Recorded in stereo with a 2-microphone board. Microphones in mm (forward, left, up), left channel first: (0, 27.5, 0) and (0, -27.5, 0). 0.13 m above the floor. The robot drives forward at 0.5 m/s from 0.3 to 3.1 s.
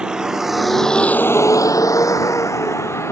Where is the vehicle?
15° right (ahead or behind); by 3.1 s 50° left (ahead or behind).